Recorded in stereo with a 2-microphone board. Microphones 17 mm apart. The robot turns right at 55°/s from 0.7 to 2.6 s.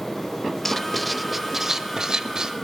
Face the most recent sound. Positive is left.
turn(degrees=-90)